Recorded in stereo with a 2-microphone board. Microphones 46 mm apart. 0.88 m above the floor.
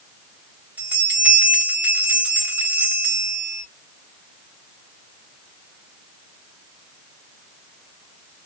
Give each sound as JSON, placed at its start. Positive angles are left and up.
{"t": 0.8, "sound": "a bell", "side_deg": -30, "distance_m": 1.3}